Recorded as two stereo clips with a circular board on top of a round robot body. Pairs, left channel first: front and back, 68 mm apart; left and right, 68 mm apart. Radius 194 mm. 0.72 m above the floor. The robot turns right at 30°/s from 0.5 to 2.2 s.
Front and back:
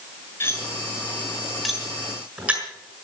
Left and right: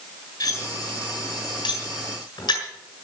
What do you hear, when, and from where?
0.4 s cutlery clinking: 60° left, 6.5 m; by 2.6 s 110° left, 6.5 m